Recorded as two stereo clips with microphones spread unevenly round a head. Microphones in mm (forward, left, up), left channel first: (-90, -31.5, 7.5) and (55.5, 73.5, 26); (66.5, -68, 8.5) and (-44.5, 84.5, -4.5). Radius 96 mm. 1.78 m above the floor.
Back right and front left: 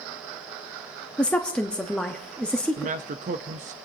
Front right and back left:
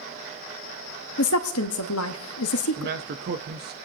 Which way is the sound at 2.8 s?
85° left.